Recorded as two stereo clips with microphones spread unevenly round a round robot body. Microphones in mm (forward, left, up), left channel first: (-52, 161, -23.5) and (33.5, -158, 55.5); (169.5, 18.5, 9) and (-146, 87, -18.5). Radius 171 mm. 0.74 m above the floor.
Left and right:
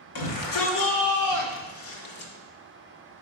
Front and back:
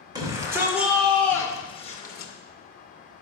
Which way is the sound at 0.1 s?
90° left.